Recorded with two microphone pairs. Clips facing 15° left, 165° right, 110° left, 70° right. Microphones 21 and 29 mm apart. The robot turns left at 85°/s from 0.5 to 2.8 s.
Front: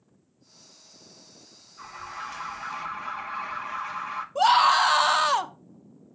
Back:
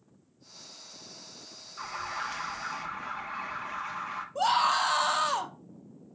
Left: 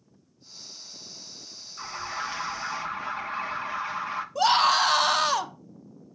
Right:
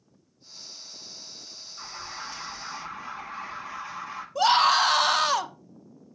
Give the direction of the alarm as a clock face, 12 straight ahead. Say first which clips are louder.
Back 3 dB, left 6 dB; 6 o'clock.